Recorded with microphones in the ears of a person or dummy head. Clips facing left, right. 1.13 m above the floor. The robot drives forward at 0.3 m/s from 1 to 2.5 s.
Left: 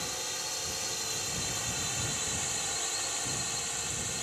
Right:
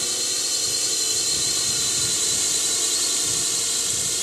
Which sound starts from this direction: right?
A drone, at 0.0 s.